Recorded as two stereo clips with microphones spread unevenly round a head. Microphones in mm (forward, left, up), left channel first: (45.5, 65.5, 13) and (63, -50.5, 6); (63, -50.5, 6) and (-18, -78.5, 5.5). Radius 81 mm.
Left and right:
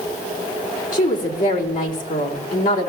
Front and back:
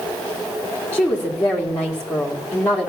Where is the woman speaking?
100° left, 3 m.